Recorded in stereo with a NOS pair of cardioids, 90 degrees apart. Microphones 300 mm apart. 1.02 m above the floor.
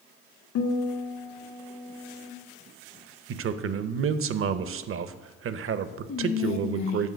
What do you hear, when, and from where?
0.6 s a guitar: 70° left, 1.7 m
3.3 s a man speaking: 45° right, 0.6 m
6.1 s whispering: 65° left, 1.3 m